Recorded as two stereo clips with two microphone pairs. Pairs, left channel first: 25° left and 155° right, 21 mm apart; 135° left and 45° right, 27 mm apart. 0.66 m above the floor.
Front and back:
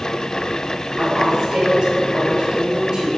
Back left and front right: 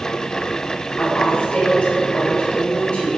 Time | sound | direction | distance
1.0 | a woman speaking | 160° left | 2.5 m